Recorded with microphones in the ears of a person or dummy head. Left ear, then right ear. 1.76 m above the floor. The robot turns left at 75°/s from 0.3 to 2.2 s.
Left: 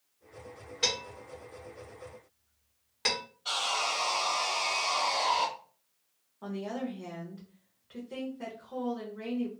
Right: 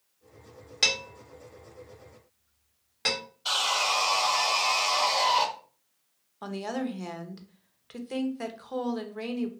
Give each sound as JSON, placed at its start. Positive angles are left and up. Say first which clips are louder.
{"t": 0.8, "sound": "dishes clattering", "louder": "right 5 dB", "side_deg": -45, "distance_m": 1.2}
{"t": 3.5, "sound": "sawing", "louder": "right 5 dB", "side_deg": -25, "distance_m": 0.7}
{"t": 6.4, "sound": "a woman speaking", "louder": "right 4 dB", "side_deg": -55, "distance_m": 0.7}